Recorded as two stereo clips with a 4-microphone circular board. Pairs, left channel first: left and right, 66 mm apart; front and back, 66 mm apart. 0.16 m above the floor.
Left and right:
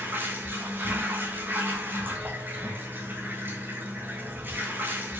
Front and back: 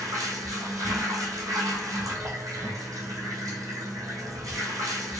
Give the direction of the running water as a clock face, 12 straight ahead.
5 o'clock.